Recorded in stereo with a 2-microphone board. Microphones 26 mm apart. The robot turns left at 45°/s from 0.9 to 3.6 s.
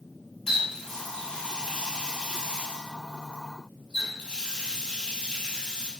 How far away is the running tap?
About 1.0 m.